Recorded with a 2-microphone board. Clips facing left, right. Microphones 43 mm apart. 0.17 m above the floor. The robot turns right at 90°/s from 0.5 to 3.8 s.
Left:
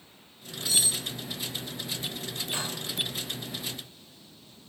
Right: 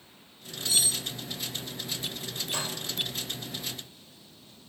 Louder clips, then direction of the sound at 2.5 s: Even; 25° left (ahead or behind).